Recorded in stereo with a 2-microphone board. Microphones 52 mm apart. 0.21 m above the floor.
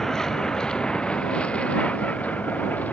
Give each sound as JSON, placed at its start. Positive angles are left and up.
{"t": 0.0, "sound": "a vehicle", "side_deg": 10}